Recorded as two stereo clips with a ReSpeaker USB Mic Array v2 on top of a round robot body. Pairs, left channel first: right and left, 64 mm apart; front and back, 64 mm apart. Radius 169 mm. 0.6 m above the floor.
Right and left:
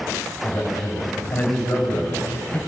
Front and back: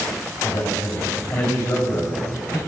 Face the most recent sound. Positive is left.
turn(degrees=-35)